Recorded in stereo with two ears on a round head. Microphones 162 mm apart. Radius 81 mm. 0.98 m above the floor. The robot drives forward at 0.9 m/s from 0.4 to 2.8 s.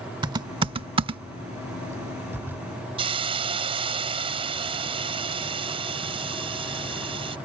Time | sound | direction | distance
0.2 | typing on a keyboard | 25° right (ahead or behind) | ?
3.0 | a hiss | 30° right (ahead or behind) | ?